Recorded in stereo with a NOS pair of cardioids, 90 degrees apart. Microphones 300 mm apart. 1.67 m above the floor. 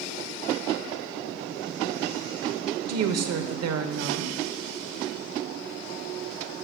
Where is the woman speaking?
60° right, 0.9 m.